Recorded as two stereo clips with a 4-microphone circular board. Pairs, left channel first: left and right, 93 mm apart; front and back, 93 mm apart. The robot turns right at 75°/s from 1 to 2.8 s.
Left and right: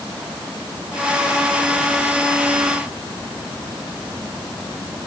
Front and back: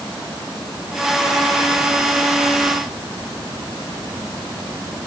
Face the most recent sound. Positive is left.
No sound to turn to.